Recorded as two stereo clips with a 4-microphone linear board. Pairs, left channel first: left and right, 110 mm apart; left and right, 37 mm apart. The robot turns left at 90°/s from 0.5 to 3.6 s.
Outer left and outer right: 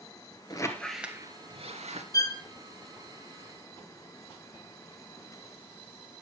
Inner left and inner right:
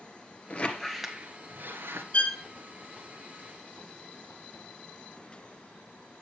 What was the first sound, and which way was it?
A squeak, 40° left.